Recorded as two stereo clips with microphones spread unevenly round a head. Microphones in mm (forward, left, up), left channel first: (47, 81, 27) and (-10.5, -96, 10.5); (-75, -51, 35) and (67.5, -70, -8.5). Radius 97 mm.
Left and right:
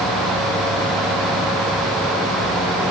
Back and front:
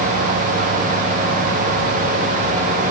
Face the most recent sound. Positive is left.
No sound to turn to.